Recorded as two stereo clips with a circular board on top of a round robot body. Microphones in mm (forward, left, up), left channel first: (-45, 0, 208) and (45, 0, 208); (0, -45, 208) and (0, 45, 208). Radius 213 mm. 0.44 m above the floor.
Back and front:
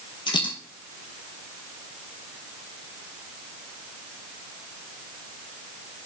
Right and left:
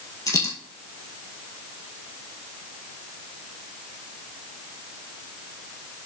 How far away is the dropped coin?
About 1.5 m.